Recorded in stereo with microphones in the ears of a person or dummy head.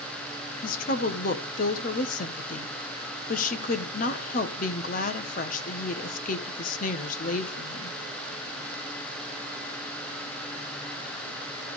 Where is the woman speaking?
45° left (ahead or behind), 1.3 m.